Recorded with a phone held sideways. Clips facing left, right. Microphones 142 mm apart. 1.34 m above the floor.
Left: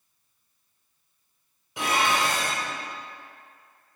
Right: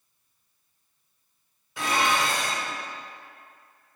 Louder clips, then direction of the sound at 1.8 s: Even; 15° left (ahead or behind).